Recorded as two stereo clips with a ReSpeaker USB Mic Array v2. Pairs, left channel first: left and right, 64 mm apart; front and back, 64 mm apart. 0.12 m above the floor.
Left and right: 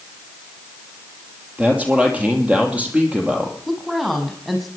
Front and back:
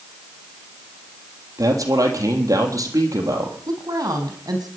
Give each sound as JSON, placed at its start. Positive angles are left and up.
{"t": 1.6, "sound": "a man speaking", "azimuth_deg": -160, "distance_m": 3.0}
{"t": 3.7, "sound": "a woman speaking", "azimuth_deg": -175, "distance_m": 4.0}